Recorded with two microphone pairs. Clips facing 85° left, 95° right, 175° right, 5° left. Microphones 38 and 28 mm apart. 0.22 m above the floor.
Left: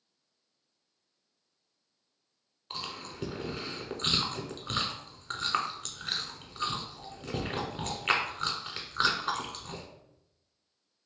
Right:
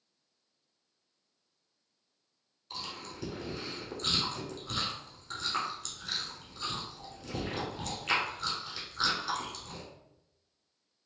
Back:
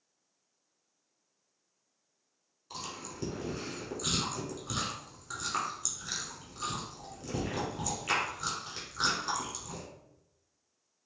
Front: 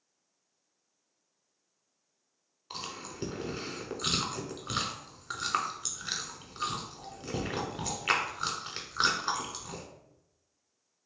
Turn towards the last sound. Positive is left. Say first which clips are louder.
# left 2 dB, front 1 dB
turn(degrees=45)